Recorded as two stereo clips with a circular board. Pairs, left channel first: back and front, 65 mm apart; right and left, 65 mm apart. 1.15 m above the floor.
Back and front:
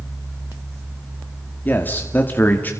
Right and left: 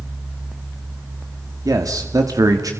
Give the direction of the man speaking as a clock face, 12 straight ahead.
8 o'clock.